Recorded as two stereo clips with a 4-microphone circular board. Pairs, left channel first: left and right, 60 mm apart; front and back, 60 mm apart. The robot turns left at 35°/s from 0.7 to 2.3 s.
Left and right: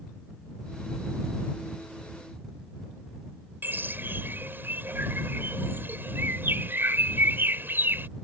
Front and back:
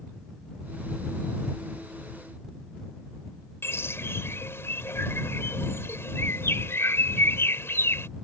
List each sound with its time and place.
3.6 s a bird: 40° right